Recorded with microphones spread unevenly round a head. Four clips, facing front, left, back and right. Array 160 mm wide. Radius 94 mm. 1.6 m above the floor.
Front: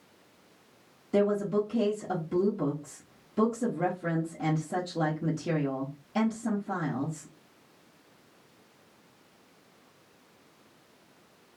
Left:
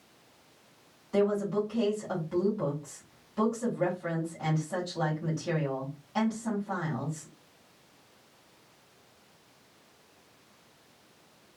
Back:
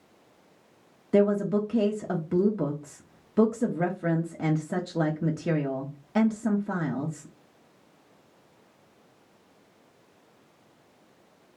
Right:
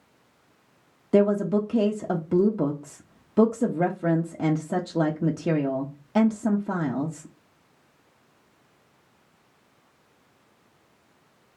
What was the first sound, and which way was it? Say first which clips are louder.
A woman speaking: right 6 dB, back 3 dB; 110° right.